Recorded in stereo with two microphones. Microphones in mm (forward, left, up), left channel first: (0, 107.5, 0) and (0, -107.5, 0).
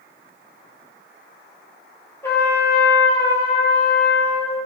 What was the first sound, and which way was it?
A trumpet, 10° left (ahead or behind).